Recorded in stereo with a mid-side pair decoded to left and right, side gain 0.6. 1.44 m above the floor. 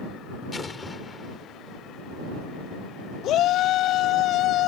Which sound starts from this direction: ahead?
An explosion, at 0.5 s.